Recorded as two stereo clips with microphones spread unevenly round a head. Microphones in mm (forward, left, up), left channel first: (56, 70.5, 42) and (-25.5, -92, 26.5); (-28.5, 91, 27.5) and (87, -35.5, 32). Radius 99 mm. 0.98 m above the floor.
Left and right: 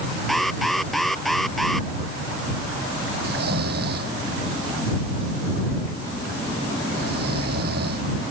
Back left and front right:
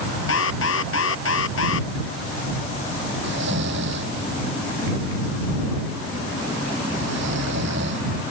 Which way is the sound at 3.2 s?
80° right.